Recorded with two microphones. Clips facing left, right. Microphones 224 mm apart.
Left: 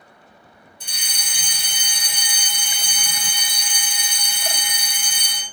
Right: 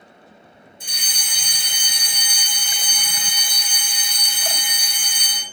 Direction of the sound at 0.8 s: 10° right (ahead or behind).